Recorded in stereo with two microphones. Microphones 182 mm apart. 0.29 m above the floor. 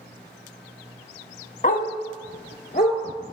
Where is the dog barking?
50° left (ahead or behind), 0.6 m; by 3.0 s 55° left (ahead or behind), 1.7 m.